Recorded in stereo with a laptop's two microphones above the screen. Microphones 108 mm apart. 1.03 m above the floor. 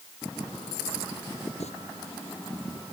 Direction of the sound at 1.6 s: 80° left.